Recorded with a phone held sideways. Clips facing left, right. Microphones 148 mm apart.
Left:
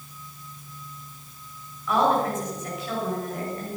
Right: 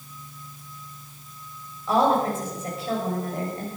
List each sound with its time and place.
1.9 s a woman speaking: 30° right (ahead or behind), 7 m